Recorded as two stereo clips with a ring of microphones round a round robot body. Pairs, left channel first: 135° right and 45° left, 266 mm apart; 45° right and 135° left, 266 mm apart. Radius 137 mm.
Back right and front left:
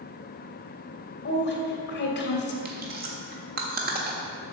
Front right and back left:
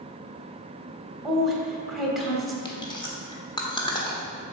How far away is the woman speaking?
About 1.7 m.